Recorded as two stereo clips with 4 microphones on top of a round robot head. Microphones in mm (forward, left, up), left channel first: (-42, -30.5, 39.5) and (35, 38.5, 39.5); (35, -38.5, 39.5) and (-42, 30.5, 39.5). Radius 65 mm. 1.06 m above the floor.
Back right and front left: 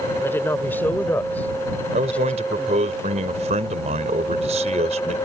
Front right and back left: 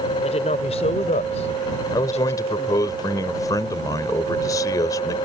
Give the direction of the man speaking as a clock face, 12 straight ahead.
11 o'clock.